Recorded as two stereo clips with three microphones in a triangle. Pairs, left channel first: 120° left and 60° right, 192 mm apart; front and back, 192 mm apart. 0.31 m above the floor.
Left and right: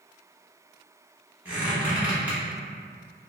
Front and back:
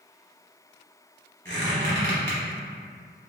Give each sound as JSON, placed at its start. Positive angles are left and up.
{"t": 1.4, "sound": "a squeak", "azimuth_deg": -140, "distance_m": 1.1}